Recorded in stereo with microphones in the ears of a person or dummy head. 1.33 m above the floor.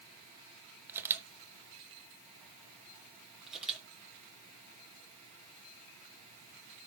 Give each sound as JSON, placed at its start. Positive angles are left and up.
{"t": 0.9, "sound": "a camera shutter", "side_deg": -15, "distance_m": 0.9}
{"t": 3.5, "sound": "a camera shutter", "side_deg": 0, "distance_m": 4.5}